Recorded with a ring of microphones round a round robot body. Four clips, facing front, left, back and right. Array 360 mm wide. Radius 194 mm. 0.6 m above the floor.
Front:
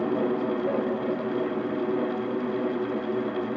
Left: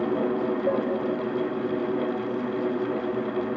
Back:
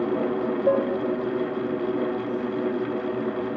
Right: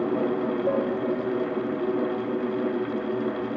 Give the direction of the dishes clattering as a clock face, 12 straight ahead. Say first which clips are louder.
Right 1 dB, back 9 dB; 6 o'clock.